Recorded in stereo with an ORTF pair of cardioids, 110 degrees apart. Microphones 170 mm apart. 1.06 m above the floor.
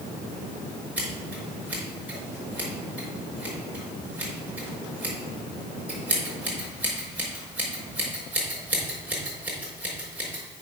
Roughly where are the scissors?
Ahead.